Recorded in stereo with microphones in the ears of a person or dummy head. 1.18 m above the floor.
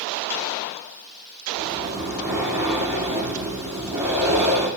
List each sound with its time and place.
1.6 s breathing: 15° right (ahead or behind), 10 m